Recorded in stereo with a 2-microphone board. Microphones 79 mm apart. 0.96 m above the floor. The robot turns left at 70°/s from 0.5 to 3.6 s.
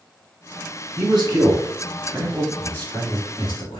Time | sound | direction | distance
1.0 | a man speaking | 55° right (ahead or behind) | 1.6 m